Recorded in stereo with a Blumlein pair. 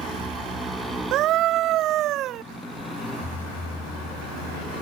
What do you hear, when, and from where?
0.0 s a motorcycle: 10° right; by 4.8 s 15° left
1.1 s a scream: 35° right